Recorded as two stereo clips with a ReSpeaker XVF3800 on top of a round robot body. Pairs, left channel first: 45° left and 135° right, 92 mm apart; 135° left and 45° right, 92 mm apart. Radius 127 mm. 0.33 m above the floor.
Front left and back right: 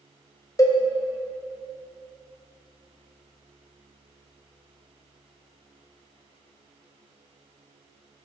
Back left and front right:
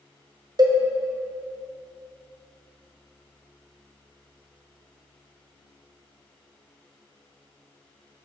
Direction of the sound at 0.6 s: 5° right.